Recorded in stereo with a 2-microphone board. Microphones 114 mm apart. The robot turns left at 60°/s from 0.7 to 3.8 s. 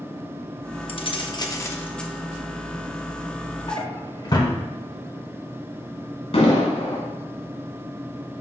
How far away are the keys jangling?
About 0.8 m.